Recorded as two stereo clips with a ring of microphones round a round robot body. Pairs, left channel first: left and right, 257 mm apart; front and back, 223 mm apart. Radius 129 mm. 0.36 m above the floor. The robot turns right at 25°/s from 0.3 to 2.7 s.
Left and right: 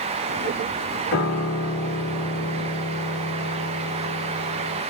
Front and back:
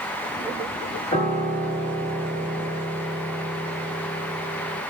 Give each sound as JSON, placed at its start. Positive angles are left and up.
{"t": 1.1, "sound": "a piano", "azimuth_deg": 60, "distance_m": 1.6}